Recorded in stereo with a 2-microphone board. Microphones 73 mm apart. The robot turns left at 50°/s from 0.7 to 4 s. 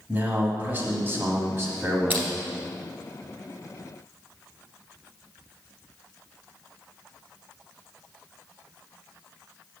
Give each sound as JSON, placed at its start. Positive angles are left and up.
{"t": 0.1, "sound": "a man speaking", "azimuth_deg": -40, "distance_m": 1.3}
{"t": 2.1, "sound": "crushing", "side_deg": -30, "distance_m": 1.2}